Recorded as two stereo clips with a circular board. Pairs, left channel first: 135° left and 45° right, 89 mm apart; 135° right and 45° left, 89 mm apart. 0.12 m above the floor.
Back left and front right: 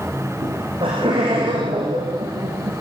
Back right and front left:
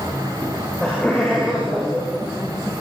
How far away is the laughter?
About 8.5 m.